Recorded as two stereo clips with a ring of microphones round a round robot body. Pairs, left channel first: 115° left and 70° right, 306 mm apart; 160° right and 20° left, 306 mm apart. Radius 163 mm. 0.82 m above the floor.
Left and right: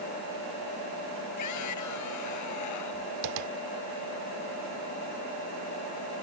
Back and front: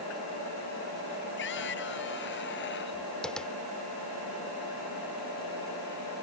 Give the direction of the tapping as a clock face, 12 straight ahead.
2 o'clock.